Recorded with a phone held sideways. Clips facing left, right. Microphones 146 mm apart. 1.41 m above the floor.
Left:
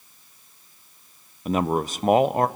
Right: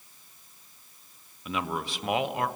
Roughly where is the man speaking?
Left.